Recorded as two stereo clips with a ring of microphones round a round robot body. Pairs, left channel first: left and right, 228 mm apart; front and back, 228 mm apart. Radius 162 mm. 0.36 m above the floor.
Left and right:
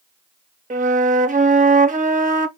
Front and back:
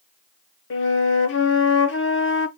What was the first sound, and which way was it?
A flute, 35° right.